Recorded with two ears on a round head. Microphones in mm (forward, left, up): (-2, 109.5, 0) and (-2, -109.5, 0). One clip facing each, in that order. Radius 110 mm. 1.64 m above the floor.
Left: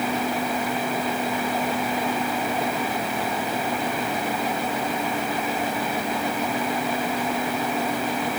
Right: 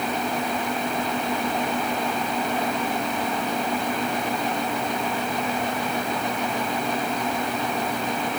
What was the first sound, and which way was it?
Only background noise.